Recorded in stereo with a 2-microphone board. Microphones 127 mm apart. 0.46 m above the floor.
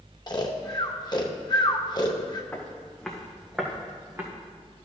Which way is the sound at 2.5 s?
15° left (ahead or behind).